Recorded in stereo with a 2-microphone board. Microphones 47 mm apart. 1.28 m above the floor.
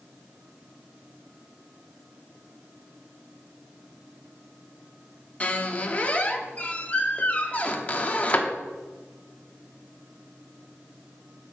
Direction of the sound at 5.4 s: 30° left (ahead or behind).